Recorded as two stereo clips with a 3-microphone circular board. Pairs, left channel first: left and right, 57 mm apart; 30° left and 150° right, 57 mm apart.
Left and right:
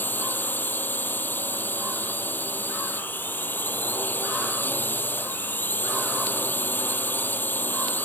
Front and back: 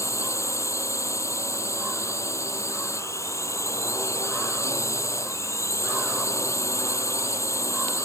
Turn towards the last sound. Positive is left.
turn(degrees=40)